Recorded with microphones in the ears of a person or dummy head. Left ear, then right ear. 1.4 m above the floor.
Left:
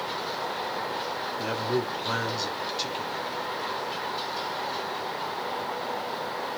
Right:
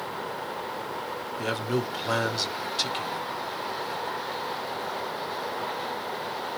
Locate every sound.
1.4 s a man speaking: 20° right (ahead or behind), 0.6 m